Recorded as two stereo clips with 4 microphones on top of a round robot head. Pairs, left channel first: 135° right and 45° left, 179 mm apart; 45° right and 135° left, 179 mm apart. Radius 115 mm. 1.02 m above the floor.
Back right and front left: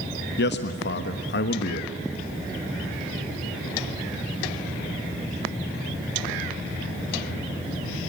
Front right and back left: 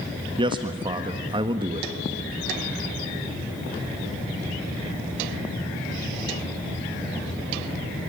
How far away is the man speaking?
About 1.4 m.